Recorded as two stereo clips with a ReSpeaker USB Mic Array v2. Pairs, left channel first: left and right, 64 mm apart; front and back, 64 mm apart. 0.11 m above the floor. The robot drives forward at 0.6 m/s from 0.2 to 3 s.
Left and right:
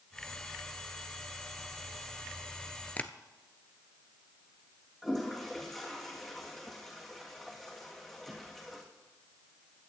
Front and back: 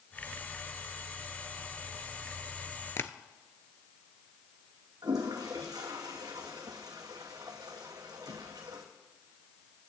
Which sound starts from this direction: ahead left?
Tapping, at 3.0 s.